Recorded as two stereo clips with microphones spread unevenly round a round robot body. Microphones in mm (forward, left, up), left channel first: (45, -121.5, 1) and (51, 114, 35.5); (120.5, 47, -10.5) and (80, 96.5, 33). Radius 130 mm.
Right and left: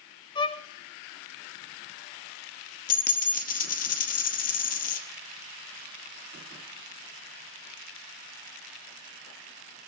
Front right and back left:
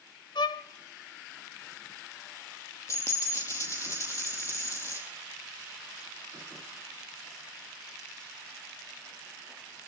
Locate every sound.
0.3 s a violin: 20° right, 0.5 m
2.9 s a dropped coin: 140° right, 0.8 m